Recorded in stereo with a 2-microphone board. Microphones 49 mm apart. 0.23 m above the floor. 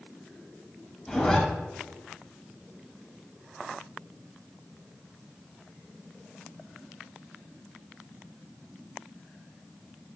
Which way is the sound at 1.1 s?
15° left (ahead or behind).